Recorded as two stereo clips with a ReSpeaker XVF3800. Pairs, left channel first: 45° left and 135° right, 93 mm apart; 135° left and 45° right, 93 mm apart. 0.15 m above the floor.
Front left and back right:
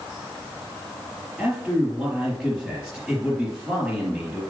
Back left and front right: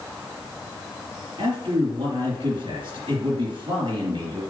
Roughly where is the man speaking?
Ahead right.